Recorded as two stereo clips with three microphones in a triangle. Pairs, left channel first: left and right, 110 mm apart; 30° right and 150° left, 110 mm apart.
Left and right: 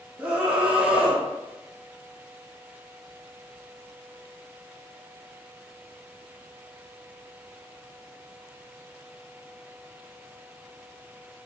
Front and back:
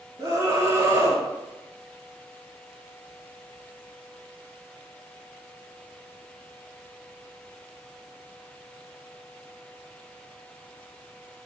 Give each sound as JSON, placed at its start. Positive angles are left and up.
{"t": 0.2, "sound": "a scream", "azimuth_deg": -160, "distance_m": 0.7}